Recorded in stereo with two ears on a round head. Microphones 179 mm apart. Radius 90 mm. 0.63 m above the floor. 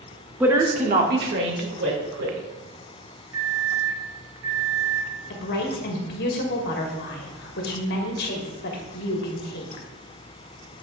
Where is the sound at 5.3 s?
55° left (ahead or behind), 1.4 m.